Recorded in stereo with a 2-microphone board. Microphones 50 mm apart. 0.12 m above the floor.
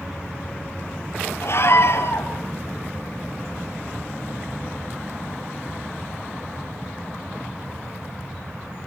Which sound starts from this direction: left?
A scream, at 1.4 s.